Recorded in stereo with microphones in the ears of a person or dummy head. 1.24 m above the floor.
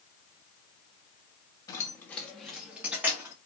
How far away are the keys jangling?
About 0.9 m.